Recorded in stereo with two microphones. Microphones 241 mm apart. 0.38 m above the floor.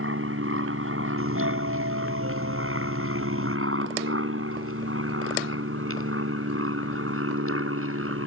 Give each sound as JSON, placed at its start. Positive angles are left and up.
{"t": 0.0, "sound": "an aircraft", "side_deg": -65}
{"t": 1.2, "sound": "a doorbell", "side_deg": -70}